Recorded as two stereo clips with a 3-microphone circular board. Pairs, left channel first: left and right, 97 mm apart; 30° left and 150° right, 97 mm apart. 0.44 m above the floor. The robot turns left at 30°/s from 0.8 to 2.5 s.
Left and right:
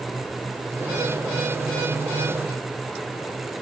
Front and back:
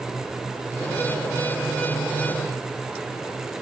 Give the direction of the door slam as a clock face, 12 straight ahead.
No door slam in this recording.